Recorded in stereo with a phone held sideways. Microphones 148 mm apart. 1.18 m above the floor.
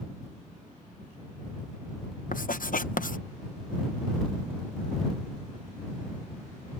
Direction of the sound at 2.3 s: 75° left (ahead or behind).